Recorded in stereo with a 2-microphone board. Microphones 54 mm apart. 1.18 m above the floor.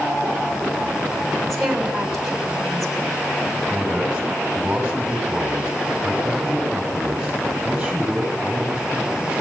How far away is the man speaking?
About 7 m.